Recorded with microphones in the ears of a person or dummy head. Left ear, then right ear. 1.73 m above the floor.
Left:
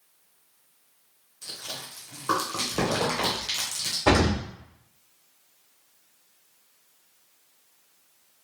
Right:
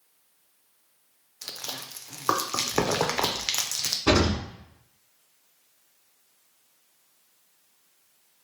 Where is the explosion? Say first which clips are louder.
Left 1 dB; 25° left (ahead or behind), 1.2 m.